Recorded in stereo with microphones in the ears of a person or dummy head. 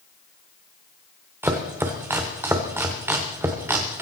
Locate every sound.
1.4 s chopping: 10° right (ahead or behind), 1.1 m